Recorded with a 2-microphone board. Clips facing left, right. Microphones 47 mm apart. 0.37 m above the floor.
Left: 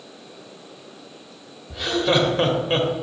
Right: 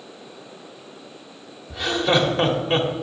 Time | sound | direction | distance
1.7 | laughter | centre (ahead or behind) | 1.0 m